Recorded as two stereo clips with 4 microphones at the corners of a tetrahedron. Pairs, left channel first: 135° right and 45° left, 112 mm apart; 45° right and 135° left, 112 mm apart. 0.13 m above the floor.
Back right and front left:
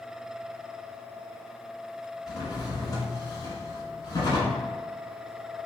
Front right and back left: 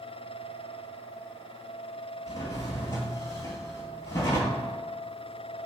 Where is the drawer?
95° right, 0.8 m.